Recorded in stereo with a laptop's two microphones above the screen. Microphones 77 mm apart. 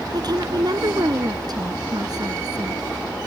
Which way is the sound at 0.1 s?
55° right (ahead or behind).